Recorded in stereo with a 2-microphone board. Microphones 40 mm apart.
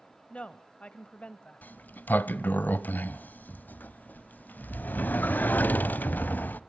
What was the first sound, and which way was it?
A woman speaking, 30° left (ahead or behind).